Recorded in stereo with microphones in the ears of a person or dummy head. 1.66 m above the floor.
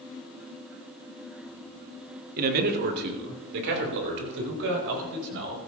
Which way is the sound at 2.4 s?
45° right (ahead or behind).